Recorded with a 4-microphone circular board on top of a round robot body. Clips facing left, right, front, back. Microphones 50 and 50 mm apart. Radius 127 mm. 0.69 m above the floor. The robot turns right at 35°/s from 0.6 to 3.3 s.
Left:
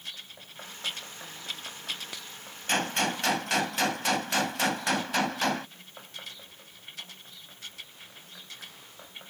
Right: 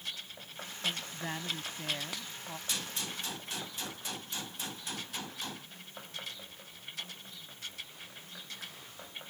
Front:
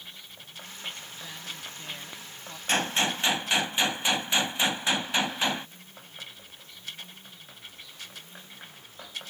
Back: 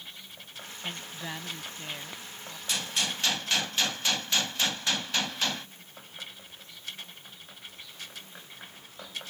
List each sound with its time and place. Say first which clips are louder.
0.8 s a woman speaking: right 2 dB, back 3 dB; 140° right; by 2.6 s 75° right
2.7 s a gunshot: left 14 dB, front 6 dB; 50° left; by 5.7 s 70° left